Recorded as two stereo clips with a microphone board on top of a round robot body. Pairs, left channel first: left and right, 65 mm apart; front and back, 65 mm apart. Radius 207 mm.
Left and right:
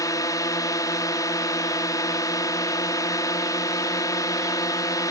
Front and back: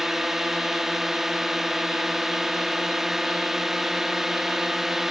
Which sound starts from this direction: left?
A drone, at 0.0 s.